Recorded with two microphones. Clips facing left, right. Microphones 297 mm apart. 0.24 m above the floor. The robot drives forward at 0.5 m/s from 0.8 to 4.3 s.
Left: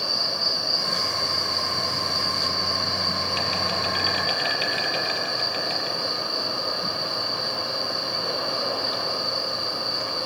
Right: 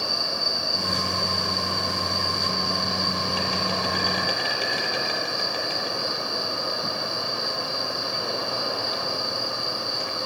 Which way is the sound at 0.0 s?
65° right (ahead or behind).